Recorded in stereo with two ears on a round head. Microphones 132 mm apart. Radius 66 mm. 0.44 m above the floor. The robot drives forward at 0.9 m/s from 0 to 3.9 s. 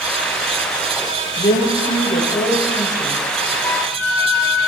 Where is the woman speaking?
45° left (ahead or behind), 1.9 m; by 3.2 s 25° left (ahead or behind), 3 m.